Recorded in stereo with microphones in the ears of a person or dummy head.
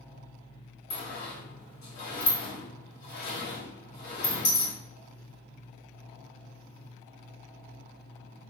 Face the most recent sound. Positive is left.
turn(degrees=60)  # may be behind; listen again after turning